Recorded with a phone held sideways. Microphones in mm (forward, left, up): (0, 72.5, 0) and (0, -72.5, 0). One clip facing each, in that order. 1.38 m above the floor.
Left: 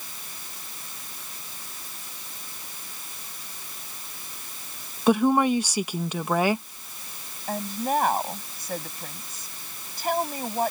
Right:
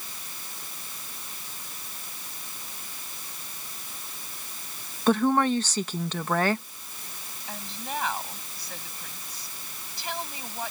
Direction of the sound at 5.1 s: 10° left (ahead or behind).